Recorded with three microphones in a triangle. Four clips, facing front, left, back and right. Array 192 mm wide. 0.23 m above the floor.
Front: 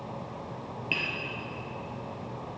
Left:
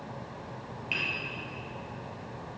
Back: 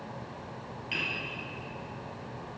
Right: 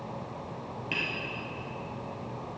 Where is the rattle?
No rattle in this recording.